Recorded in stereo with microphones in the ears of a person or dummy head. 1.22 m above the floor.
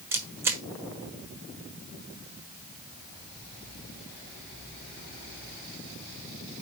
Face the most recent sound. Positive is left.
turn(degrees=-15)  # may be behind; listen again after turning